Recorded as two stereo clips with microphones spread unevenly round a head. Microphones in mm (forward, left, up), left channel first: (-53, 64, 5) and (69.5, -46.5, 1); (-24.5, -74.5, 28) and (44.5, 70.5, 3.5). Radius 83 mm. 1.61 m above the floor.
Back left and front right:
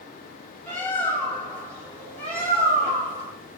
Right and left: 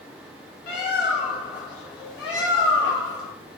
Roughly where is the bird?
Behind right.